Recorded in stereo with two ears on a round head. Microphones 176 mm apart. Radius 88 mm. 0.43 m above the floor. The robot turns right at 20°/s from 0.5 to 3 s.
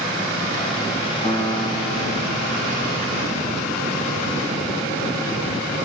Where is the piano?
20° left (ahead or behind), 5.5 m; by 5.5 s 55° left (ahead or behind), 5.5 m.